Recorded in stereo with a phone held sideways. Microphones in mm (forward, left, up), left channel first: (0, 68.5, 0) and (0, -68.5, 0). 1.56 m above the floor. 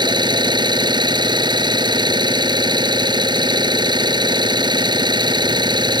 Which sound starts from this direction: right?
An engine running, at 0.0 s.